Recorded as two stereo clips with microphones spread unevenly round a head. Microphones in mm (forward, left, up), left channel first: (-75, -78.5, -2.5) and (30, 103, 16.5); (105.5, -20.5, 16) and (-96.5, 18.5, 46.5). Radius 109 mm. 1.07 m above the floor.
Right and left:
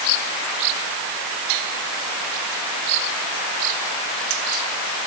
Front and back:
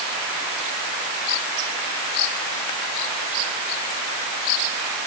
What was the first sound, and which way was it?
Only background noise.